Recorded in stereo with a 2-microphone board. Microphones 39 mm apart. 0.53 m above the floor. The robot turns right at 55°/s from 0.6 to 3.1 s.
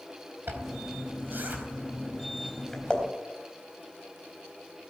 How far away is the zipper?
About 4 m.